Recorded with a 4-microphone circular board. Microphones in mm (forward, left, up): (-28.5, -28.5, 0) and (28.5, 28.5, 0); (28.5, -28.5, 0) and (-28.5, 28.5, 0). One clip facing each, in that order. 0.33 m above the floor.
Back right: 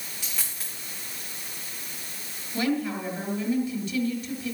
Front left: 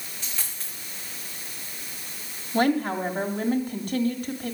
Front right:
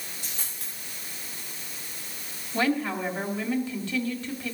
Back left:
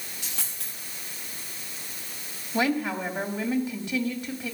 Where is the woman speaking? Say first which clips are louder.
Front left 4 dB, even; 65° left, 2.5 m.